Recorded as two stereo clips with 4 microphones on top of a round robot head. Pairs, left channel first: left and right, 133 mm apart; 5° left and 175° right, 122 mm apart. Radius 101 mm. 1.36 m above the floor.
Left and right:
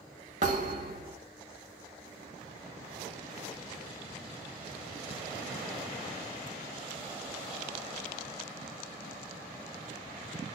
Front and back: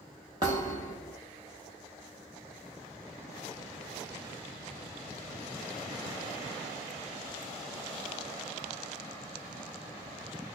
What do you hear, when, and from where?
0.4 s a thud: 115° right, 1.0 m